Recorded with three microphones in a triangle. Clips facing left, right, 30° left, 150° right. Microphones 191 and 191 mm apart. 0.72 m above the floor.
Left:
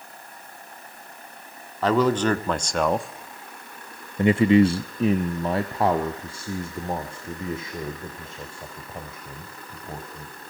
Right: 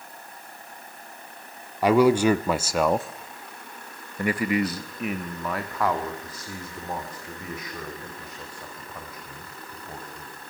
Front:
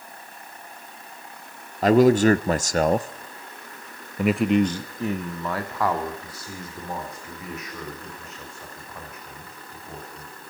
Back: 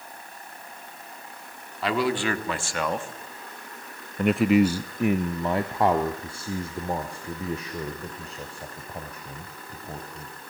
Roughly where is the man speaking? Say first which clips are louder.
Right 3 dB, front 10 dB; ahead.